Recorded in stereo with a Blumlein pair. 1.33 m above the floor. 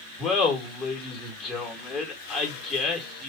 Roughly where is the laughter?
Ahead.